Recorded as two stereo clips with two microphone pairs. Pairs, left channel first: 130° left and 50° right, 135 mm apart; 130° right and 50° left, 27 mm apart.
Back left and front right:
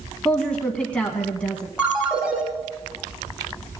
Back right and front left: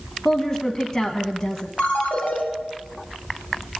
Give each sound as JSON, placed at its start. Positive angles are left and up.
{"t": 0.2, "sound": "a woman speaking", "azimuth_deg": -155, "distance_m": 1.1}
{"t": 1.8, "sound": "a ringtone", "azimuth_deg": -135, "distance_m": 2.5}